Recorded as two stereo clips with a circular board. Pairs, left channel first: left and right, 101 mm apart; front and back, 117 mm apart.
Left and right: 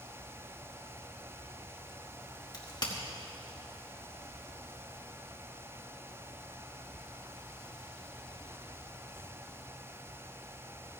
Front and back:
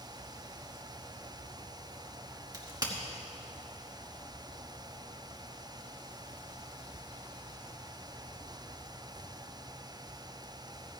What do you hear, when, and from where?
2.5 s a crack: 125° left, 2.0 m